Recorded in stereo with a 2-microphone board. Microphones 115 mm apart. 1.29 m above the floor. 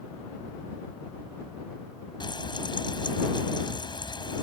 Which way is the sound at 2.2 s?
40° left (ahead or behind).